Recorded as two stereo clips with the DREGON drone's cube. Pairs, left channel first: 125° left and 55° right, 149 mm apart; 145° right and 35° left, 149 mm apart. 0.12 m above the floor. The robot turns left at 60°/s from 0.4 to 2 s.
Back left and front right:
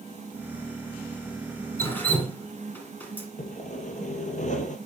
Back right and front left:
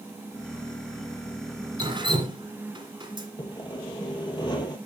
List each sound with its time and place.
1.8 s dripping: 70° left, 1.6 m; by 3.3 s 55° left, 1.6 m
3.4 s sawing: 155° left, 1.2 m